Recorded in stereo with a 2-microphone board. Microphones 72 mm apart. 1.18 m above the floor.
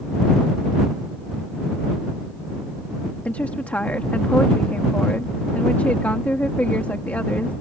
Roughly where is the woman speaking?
Left.